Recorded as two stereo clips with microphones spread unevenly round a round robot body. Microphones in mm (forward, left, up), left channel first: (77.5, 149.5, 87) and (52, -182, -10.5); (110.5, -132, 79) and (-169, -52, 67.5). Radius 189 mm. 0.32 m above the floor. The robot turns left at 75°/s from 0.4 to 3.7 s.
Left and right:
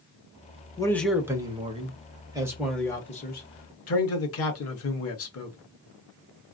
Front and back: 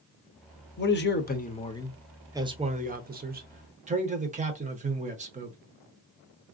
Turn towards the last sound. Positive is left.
turn(degrees=130)